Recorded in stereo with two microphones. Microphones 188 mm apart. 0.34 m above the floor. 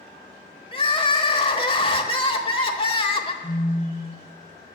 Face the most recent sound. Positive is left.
turn(degrees=15)  # may be behind; listen again after turning